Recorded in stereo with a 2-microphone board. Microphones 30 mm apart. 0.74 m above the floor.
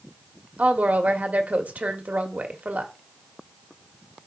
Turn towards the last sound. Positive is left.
turn(degrees=-70)  # may be behind; listen again after turning